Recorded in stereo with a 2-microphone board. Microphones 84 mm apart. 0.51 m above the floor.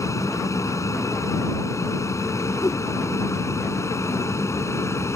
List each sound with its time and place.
0.0 s an aircraft: 40° left (ahead or behind); by 5.2 s 35° left (ahead or behind)
2.6 s a whoosh: 45° left (ahead or behind)